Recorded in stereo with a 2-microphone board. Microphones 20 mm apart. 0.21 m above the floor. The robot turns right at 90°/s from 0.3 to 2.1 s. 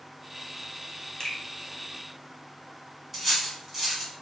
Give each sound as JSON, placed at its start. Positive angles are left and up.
{"t": 1.2, "sound": "a finger snap", "side_deg": 30, "distance_m": 0.9}
{"t": 3.1, "sound": "cutlery clinking", "side_deg": -10, "distance_m": 1.2}